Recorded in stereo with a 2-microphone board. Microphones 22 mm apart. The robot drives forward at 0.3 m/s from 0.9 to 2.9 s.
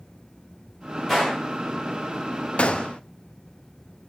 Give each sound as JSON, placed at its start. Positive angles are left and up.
{"t": 1.1, "sound": "a gunshot", "side_deg": 5, "distance_m": 5.5}
{"t": 2.6, "sound": "a gunshot", "side_deg": 70, "distance_m": 0.8}